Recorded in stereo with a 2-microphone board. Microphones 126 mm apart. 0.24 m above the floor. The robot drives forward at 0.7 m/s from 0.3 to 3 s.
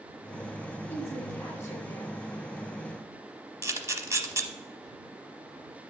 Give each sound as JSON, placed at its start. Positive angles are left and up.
{"t": 0.9, "sound": "a woman speaking", "side_deg": 15, "distance_m": 1.9}
{"t": 3.6, "sound": "a camera shutter", "side_deg": -25, "distance_m": 0.8}